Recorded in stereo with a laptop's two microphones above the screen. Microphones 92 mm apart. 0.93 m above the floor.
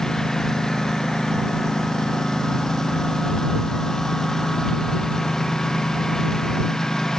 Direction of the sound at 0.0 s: 5° left (ahead or behind).